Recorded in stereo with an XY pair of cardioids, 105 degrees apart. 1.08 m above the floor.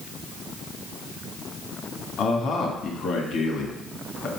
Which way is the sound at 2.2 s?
65° left.